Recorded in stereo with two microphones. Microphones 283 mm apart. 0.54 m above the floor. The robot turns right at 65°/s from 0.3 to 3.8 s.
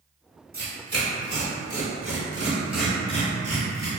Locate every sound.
0.5 s tearing paper: 35° right (ahead or behind), 0.8 m; by 3.9 s 65° left (ahead or behind), 0.8 m